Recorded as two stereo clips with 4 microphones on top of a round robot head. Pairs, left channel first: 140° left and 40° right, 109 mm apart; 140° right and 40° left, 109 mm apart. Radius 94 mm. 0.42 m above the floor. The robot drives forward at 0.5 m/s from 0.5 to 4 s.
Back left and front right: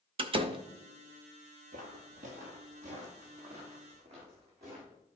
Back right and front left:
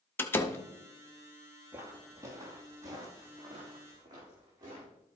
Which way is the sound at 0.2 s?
70° right.